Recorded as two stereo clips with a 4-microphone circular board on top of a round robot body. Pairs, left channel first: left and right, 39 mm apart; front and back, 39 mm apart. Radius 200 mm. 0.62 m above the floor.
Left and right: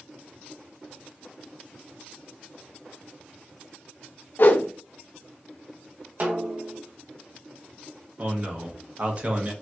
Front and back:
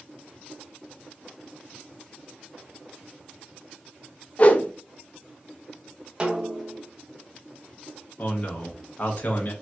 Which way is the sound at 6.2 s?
120° right.